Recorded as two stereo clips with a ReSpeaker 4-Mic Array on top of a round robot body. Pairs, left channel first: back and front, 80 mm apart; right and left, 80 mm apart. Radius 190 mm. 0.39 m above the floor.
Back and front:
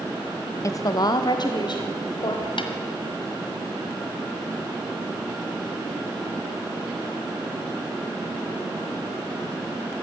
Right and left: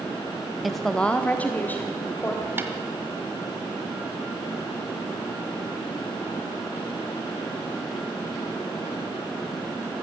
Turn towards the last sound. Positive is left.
turn(degrees=155)